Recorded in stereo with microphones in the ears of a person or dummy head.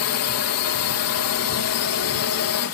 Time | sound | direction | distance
0.0 | a drone | 75° left (ahead or behind) | ?